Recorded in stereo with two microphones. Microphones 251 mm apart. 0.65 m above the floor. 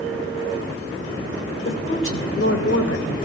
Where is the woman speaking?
50° left (ahead or behind), 3 m; by 3.2 s 65° left (ahead or behind), 2.5 m.